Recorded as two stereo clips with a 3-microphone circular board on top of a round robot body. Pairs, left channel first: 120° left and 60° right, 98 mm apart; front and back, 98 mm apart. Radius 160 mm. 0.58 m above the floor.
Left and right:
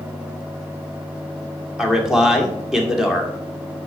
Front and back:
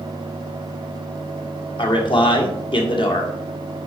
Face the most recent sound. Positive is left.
turn(degrees=25)